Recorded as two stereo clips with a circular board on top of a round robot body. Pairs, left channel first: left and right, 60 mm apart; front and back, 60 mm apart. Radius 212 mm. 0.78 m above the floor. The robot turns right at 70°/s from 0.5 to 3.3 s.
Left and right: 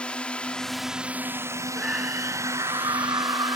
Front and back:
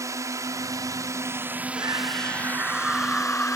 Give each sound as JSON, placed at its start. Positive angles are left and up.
{"t": 0.0, "sound": "a drone", "azimuth_deg": 160}
{"t": 1.8, "sound": "a scream", "azimuth_deg": 180}